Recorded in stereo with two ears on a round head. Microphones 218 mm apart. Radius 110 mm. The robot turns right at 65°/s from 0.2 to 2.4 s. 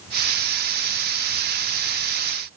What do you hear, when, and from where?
Only background noise.